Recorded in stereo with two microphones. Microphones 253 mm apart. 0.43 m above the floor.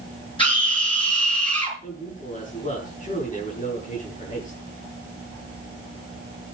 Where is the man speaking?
30° left (ahead or behind), 8 m.